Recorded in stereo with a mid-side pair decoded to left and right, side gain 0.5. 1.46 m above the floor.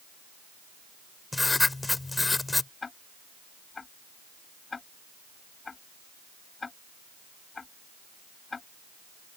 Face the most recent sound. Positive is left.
turn(degrees=30)